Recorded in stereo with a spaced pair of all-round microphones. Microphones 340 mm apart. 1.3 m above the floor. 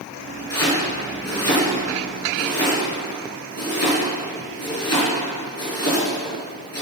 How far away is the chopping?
About 5 m.